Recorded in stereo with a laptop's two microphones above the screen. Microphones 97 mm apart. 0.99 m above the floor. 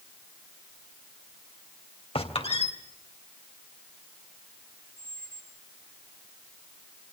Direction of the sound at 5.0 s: 10° left (ahead or behind).